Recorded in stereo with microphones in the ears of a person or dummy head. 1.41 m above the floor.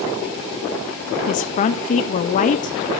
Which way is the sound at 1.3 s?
45° left (ahead or behind).